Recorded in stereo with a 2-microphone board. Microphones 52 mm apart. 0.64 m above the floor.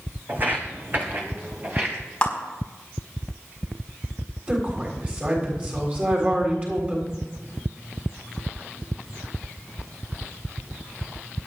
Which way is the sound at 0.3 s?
40° right (ahead or behind).